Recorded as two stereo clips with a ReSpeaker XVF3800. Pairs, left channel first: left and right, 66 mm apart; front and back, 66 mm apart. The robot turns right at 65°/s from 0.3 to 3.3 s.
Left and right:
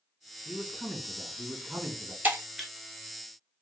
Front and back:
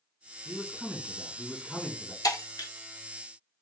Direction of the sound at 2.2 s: 25° right.